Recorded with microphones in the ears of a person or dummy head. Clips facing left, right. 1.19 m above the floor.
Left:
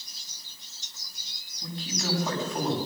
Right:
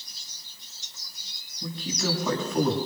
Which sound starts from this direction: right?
A man speaking, at 1.6 s.